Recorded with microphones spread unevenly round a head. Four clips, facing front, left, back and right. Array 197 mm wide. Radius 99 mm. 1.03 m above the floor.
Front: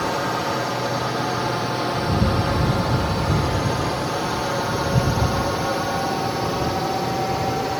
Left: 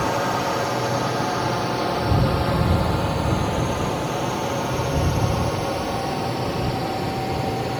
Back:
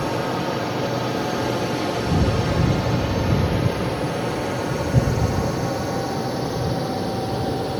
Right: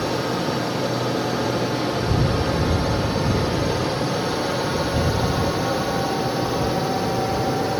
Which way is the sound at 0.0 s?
75° left.